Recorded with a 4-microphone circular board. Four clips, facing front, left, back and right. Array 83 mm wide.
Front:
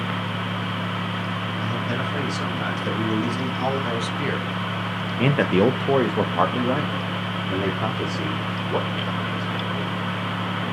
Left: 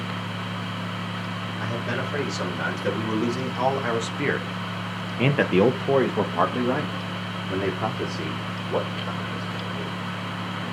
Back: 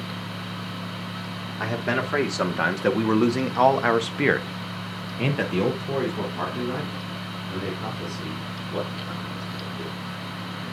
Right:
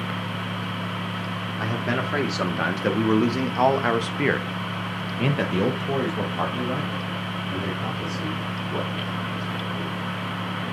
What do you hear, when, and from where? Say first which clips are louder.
1.6 s a man speaking: right 3 dB, back 4 dB; 145° right, 2.5 m; by 9.9 s 40° left, 4 m